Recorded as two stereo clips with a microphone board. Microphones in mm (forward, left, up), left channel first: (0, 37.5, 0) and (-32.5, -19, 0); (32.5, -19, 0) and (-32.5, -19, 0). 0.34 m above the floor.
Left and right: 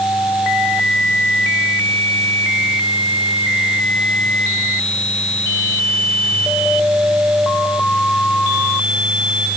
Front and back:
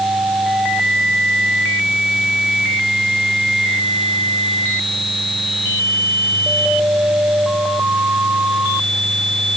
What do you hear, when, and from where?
Only background noise.